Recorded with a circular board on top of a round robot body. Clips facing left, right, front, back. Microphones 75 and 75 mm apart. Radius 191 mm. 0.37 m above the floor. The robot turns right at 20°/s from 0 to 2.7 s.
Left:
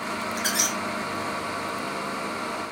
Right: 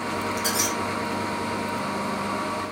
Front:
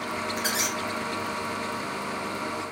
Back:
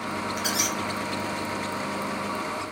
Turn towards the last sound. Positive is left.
turn(degrees=100)